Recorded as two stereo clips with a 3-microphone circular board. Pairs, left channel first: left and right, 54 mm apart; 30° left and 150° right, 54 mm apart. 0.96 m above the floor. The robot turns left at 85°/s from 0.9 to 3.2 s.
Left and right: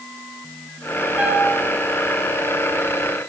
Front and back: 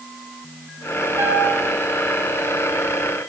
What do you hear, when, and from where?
1.2 s a piano: 150° right, 5.5 m; by 1.6 s 170° left, 5.5 m